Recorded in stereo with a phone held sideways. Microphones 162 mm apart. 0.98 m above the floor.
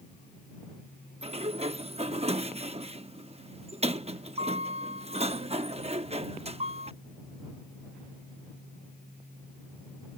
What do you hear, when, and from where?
1.2 s a sliding door: 40° right (ahead or behind)